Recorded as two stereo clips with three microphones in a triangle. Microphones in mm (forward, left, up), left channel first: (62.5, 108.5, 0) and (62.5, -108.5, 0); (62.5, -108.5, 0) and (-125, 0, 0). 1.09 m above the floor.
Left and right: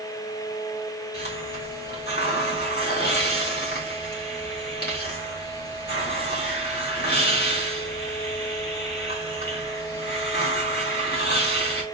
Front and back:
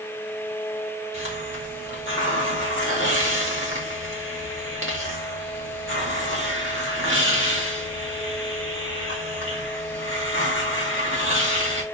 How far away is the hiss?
About 3.5 m.